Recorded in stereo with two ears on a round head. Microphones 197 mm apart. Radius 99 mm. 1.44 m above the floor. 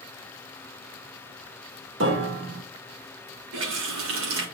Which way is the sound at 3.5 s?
65° right (ahead or behind).